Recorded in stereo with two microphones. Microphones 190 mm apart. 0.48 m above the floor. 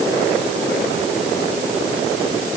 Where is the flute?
No flute in this recording.